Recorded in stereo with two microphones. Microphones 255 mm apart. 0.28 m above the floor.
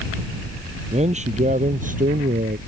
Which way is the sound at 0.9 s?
25° right (ahead or behind).